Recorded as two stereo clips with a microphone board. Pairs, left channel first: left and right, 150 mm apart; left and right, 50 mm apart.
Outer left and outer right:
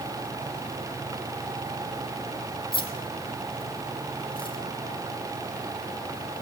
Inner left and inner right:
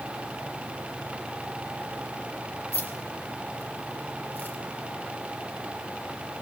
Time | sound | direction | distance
2.7 | keys jangling | 35° left (ahead or behind) | 6 m